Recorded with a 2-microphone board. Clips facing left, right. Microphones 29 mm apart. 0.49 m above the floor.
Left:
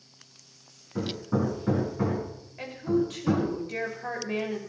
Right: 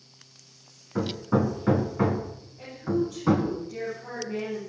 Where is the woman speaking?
85° left, 8.5 m.